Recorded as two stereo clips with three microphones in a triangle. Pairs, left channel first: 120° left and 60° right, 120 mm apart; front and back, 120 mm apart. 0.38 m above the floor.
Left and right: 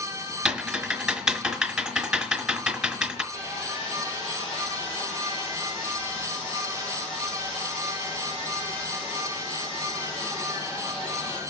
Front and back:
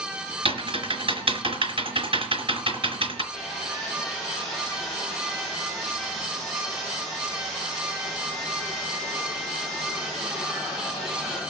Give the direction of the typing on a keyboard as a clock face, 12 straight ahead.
5 o'clock.